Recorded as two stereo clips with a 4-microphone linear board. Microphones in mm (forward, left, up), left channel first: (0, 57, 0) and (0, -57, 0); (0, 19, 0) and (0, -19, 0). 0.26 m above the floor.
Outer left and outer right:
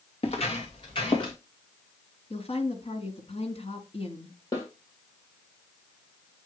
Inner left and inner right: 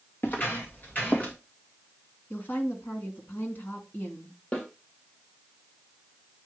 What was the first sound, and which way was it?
Footsteps, 55° left (ahead or behind).